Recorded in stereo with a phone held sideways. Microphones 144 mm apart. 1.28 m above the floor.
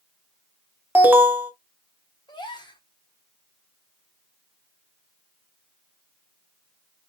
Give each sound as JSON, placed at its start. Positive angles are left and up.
{"t": 0.9, "sound": "an alarm", "side_deg": -15, "distance_m": 1.3}
{"t": 2.3, "sound": "a gasp", "side_deg": 30, "distance_m": 1.4}